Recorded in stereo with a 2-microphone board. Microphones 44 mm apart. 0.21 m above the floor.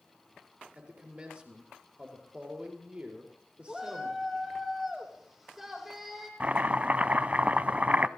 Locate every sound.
0.8 s a man speaking: 25° right (ahead or behind), 5 m
3.7 s a shout: 10° right (ahead or behind), 6 m
6.4 s chopping: 35° right (ahead or behind), 0.6 m